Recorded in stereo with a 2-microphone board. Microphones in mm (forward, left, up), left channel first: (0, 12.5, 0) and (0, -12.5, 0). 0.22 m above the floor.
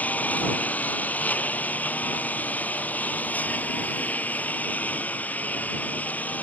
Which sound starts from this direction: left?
A lawn mower, at 0.0 s.